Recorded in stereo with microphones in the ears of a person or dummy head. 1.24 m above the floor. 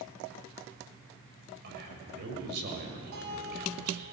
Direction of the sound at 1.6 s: 60° right (ahead or behind).